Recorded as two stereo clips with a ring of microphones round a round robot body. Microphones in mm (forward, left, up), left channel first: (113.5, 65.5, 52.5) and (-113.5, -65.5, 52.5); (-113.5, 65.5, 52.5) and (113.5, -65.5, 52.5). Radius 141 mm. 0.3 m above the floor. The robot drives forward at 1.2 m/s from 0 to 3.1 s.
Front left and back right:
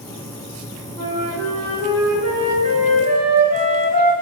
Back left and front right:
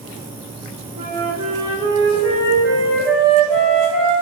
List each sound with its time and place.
1.0 s a flute: 95° right, 8 m; by 4.2 s 110° right, 8.5 m